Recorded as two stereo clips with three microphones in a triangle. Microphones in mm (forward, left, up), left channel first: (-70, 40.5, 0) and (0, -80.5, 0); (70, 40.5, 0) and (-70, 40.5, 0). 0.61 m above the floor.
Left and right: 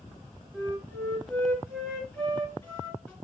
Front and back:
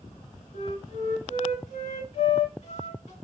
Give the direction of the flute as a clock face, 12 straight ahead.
11 o'clock.